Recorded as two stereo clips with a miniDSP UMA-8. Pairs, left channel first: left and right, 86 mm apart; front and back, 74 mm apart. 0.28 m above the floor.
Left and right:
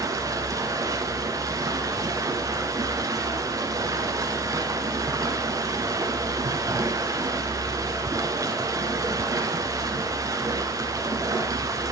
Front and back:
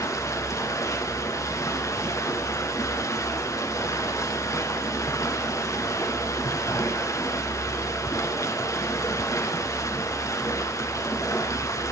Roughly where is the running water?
Ahead right.